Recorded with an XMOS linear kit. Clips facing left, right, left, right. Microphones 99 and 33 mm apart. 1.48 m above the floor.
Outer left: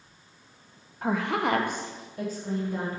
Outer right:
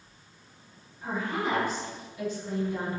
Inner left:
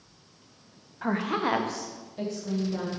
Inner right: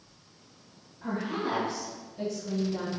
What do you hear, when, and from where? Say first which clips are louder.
1.0 s a woman speaking: outer left 4 dB, inner left 4 dB; 70° left (ahead or behind), 0.6 m; by 2.9 s 35° left (ahead or behind), 1.9 m